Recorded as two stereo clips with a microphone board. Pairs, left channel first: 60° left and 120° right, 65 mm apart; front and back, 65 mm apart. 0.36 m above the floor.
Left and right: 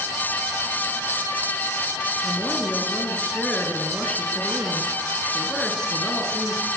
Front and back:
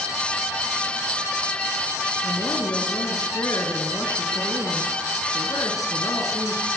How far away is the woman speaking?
About 5.5 m.